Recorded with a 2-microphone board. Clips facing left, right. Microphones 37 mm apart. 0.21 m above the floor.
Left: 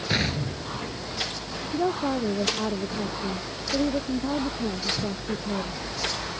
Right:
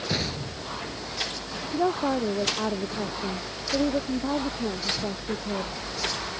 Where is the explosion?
35° left (ahead or behind).